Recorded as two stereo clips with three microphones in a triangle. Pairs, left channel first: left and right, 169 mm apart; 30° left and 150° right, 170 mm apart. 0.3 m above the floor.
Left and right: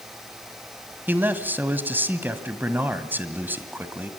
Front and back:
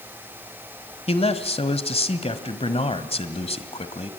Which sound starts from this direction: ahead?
A man speaking, at 1.1 s.